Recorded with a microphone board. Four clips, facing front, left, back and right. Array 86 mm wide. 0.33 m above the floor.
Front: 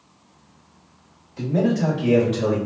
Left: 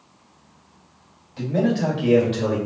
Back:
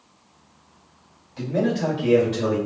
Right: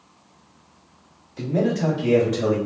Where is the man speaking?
120° left, 1.9 m; by 2.6 s 80° left, 1.6 m.